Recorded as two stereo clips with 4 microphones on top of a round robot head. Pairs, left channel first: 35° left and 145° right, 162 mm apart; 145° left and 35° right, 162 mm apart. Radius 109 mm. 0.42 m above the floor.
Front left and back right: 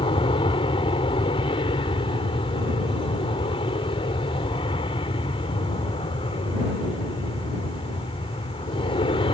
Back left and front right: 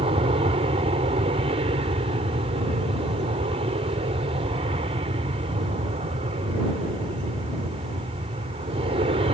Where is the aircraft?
5° right.